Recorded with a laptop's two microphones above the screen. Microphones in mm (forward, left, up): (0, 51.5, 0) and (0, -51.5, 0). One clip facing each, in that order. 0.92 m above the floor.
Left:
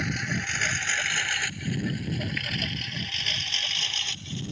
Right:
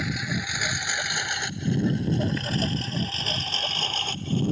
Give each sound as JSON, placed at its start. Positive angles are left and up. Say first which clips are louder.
{"t": 0.0, "sound": "a lawn mower", "louder": "right 1 dB", "side_deg": -5}